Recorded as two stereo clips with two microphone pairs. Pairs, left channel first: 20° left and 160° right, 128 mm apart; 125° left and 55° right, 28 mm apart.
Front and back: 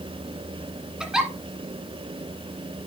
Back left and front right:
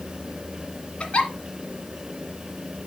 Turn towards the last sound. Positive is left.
turn(degrees=120)